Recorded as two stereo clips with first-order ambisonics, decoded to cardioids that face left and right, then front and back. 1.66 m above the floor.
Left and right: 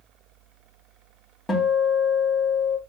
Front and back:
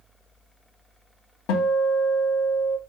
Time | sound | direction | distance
1.5 | a guitar | 10° left | 1.0 m